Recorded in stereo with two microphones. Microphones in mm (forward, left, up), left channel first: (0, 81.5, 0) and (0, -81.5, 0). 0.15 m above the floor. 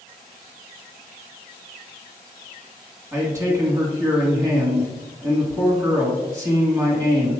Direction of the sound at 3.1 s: 20° right (ahead or behind).